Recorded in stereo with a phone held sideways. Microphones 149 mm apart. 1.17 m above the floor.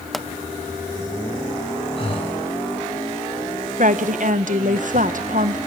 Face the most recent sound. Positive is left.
turn(degrees=-60)  # may be behind; listen again after turning